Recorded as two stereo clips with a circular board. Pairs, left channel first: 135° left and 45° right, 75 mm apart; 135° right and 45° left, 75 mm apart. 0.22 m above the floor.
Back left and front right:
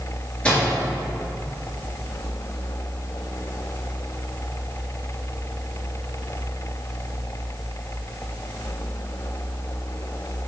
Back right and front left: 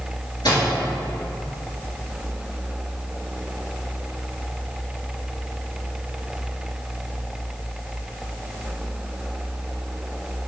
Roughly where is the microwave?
Behind right.